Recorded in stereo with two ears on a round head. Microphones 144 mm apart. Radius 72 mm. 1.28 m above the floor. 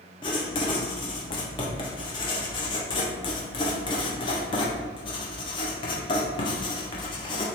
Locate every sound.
0.2 s writing: 30° left (ahead or behind), 0.6 m